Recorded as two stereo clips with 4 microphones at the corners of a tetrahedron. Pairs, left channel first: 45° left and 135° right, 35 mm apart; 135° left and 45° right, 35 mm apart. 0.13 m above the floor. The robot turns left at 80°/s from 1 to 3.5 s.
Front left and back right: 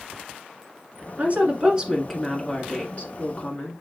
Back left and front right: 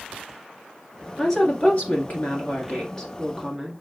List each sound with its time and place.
1.2 s a woman speaking: 150° right, 1.5 m; by 3.7 s 25° left, 1.5 m